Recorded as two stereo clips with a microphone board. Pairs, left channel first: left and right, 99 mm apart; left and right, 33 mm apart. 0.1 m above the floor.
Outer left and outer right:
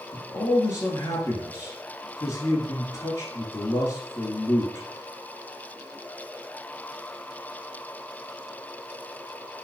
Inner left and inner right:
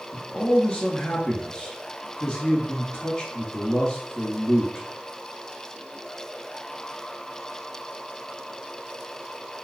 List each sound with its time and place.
0.1 s a man speaking: 35° left (ahead or behind), 1.4 m